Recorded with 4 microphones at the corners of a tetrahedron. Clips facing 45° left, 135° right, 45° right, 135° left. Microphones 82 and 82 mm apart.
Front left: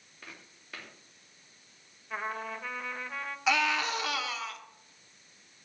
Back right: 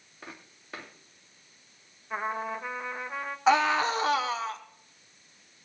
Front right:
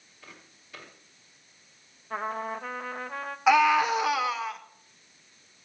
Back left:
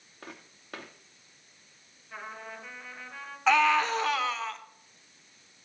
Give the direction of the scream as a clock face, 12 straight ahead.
4 o'clock.